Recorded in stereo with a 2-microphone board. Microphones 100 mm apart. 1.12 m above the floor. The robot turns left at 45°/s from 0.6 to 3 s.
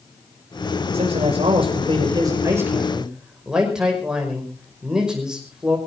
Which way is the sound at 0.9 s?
80° right.